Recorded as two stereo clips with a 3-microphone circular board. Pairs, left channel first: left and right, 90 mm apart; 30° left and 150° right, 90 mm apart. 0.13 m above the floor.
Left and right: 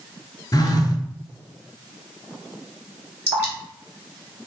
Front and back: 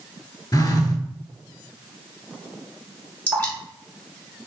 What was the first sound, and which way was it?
A phone buzzing, 65° left.